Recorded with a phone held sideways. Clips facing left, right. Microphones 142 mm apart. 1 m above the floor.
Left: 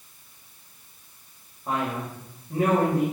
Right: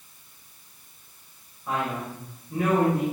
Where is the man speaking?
40° left (ahead or behind), 3.5 m.